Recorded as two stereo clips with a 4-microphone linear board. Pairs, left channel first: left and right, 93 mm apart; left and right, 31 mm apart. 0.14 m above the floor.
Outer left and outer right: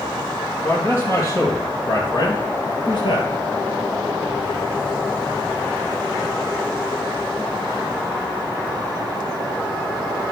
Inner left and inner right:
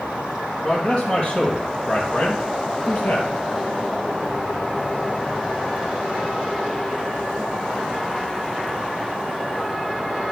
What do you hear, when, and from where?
0.6 s a man speaking: 30° left (ahead or behind), 3.5 m; by 3.3 s 65° left (ahead or behind), 2.5 m